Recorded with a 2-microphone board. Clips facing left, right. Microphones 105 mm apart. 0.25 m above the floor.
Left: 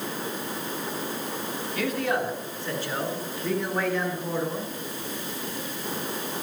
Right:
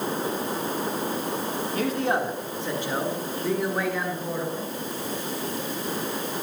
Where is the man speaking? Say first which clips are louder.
Right 1 dB; 35° right (ahead or behind), 2.5 m; by 4.7 s centre (ahead or behind), 5.5 m.